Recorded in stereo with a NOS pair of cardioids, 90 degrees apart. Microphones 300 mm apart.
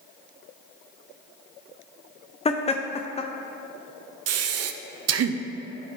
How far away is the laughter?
About 0.7 m.